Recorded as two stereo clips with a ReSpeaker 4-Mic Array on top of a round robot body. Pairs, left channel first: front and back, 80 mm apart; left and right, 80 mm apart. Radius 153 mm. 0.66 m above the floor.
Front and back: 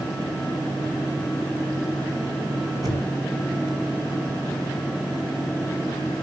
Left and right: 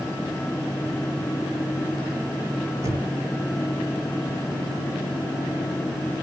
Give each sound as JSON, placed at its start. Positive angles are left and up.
{"t": 2.8, "sound": "knocking", "azimuth_deg": -140, "distance_m": 2.5}